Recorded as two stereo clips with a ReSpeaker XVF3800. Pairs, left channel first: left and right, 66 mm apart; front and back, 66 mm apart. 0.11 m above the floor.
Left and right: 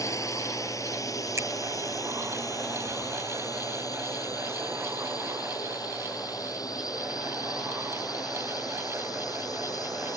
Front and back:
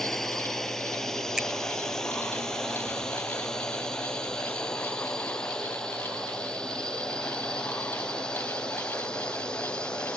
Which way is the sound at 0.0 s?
85° left.